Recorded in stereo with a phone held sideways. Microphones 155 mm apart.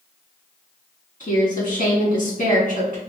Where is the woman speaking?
60° left (ahead or behind), 1.7 m.